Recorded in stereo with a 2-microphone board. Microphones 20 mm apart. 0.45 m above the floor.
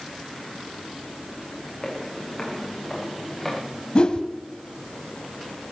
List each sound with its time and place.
1.8 s footsteps: 15° left (ahead or behind), 5.5 m; by 3.6 s 5° left (ahead or behind), 6 m
4.0 s a whoosh: 50° left (ahead or behind), 1.3 m